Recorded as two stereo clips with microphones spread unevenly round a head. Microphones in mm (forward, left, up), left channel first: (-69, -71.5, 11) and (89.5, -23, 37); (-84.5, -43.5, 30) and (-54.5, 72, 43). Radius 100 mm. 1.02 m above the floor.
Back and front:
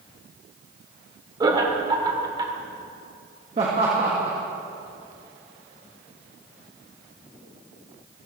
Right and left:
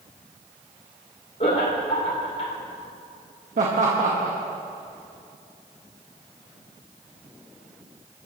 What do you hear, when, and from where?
1.4 s laughter: 50° right, 3 m
3.6 s laughter: 80° left, 1.7 m